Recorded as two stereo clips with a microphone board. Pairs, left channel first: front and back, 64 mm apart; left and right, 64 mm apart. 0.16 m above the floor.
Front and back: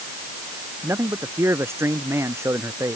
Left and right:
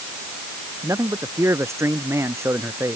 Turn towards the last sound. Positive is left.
turn(degrees=-135)